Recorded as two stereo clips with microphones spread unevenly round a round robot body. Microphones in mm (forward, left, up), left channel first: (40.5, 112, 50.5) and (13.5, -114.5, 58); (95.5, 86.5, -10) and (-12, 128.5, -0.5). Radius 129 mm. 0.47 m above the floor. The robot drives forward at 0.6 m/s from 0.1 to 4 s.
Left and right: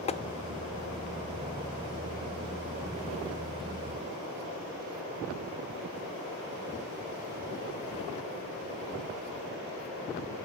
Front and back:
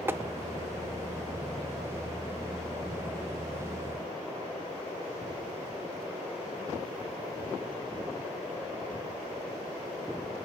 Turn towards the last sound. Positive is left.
turn(degrees=175)